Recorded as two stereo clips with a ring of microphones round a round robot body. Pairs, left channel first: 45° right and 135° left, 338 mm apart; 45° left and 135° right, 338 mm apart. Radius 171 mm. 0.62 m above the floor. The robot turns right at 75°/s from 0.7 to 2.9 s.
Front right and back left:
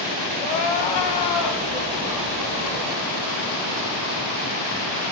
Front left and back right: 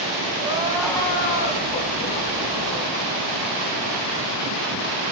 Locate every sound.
0.4 s crying: 55° right, 1.6 m; by 3.0 s 110° left, 1.6 m